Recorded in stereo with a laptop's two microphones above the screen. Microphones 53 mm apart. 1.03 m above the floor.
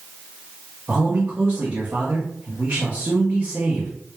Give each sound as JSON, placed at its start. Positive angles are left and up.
{"t": 0.9, "sound": "a man speaking", "side_deg": -35, "distance_m": 1.3}